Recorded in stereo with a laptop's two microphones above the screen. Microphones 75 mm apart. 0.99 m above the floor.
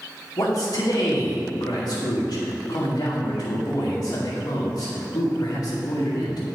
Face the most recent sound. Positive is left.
turn(degrees=80)